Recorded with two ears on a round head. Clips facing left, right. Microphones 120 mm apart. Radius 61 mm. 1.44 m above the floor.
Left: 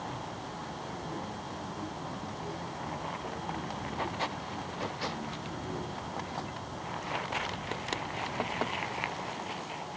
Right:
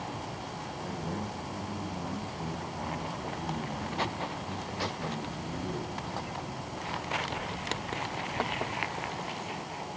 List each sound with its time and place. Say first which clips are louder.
0.8 s a man speaking: right 5 dB; 45° right (ahead or behind), 6.5 m